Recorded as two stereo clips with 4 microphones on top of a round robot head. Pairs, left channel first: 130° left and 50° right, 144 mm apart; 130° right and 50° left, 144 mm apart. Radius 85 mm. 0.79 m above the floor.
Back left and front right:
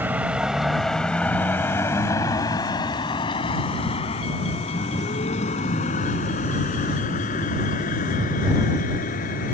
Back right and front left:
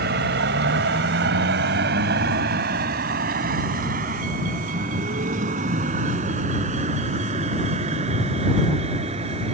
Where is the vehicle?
30° left; by 9.5 s 95° left.